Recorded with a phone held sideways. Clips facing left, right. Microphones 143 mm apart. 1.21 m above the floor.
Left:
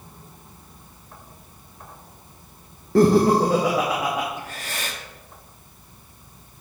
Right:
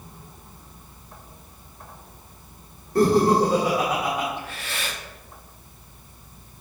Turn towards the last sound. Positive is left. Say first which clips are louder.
# even
turn(degrees=35)  # may be behind; listen again after turning